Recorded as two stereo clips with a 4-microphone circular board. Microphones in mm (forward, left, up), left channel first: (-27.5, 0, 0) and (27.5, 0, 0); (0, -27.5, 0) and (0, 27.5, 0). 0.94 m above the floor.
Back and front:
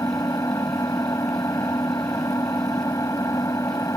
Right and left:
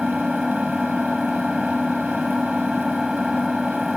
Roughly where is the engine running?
Behind.